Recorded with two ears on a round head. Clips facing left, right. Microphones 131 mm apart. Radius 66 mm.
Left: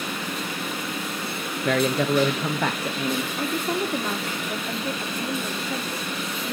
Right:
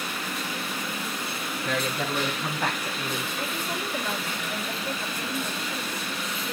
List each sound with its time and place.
1.6 s a man speaking: 45° left (ahead or behind), 0.6 m; by 3.3 s 75° left (ahead or behind), 1.3 m
3.4 s a woman speaking: 55° left (ahead or behind), 3 m